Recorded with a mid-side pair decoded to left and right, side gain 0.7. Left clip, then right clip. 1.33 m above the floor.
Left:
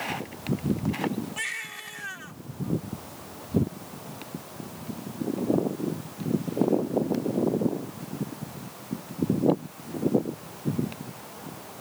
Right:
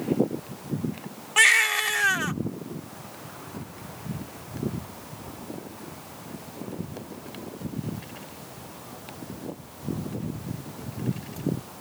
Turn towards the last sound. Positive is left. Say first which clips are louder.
# right 21 dB
turn(degrees=-55)